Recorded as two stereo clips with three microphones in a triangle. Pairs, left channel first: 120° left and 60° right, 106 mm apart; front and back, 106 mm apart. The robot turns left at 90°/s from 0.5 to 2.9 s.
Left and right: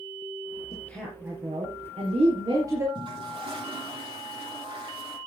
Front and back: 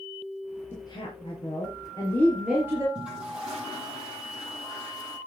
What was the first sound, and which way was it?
A woman speaking, 65° left.